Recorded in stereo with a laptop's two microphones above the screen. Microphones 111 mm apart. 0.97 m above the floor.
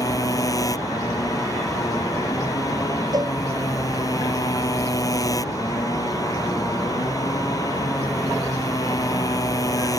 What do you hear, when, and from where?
0.0 s a motorcycle: 30° left (ahead or behind)
3.1 s a cowbell: 35° right (ahead or behind)